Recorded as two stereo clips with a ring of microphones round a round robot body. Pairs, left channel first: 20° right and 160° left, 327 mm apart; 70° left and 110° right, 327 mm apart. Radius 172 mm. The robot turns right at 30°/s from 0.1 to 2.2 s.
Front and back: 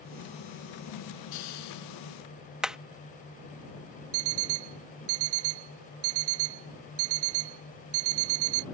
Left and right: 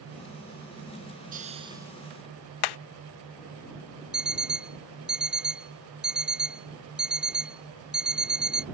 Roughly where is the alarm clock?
Behind.